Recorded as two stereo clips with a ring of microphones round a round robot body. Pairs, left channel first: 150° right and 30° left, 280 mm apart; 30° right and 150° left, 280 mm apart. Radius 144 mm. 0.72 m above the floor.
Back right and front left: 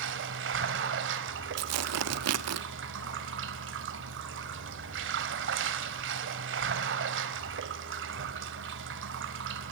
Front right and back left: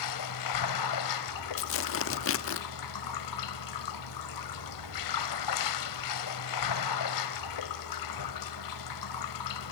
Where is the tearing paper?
5° left, 1.1 m.